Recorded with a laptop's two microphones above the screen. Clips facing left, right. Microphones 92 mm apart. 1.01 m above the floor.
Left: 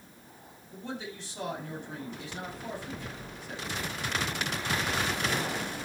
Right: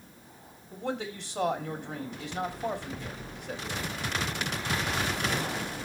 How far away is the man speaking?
About 2.5 m.